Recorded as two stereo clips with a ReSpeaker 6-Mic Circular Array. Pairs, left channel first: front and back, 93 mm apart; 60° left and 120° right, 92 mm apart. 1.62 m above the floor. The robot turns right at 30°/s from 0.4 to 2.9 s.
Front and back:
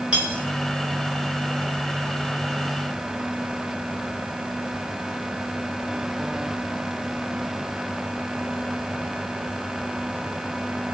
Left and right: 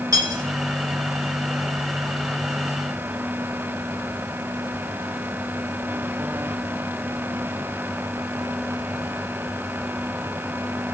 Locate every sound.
0.1 s cutlery clinking: 110° right, 1.1 m